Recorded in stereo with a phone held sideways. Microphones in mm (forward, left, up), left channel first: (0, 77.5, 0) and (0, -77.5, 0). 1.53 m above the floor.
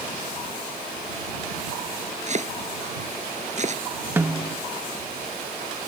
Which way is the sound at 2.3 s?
50° right (ahead or behind).